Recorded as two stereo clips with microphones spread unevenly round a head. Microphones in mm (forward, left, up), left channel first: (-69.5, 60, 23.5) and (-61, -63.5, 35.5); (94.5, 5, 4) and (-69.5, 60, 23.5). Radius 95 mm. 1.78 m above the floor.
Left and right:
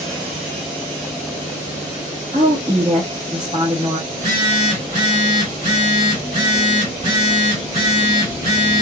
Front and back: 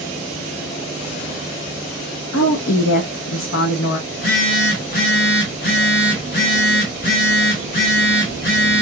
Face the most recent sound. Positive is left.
turn(degrees=-40)